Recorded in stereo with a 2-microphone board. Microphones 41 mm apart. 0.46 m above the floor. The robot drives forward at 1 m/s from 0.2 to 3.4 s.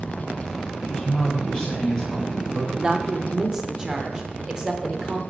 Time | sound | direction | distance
0.8 | a man speaking | 25° left (ahead or behind) | 2 m
2.8 | a woman speaking | 20° right (ahead or behind) | 0.7 m